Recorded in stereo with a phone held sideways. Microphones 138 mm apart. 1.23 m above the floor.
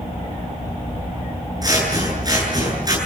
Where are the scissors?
30° right (ahead or behind), 8.5 m.